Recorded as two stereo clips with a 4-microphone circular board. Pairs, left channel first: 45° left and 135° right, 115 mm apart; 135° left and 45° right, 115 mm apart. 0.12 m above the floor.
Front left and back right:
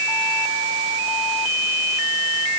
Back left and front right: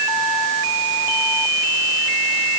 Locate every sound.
Only background noise.